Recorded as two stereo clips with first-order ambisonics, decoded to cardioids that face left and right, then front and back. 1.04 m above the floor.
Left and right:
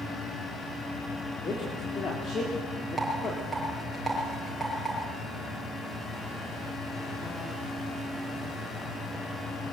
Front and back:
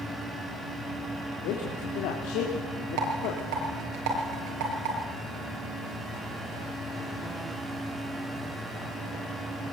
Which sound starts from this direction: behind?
A rattle, at 3.0 s.